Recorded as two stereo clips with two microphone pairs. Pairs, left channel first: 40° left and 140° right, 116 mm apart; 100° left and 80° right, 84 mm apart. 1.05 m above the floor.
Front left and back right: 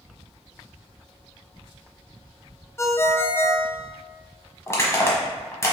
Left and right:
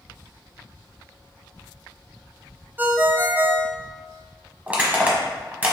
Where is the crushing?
15° right, 1.1 m.